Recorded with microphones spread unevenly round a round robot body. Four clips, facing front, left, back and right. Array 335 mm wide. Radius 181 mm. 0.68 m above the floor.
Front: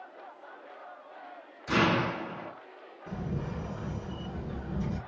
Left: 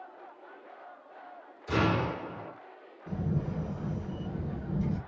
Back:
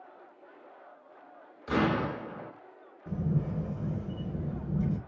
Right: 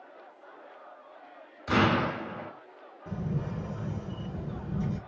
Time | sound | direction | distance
1.7 | an explosion | 90° right | 2 m
3.1 | a camera shutter | 135° right | 1.4 m